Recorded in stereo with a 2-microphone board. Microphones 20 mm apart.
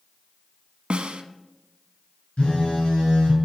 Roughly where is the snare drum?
Right.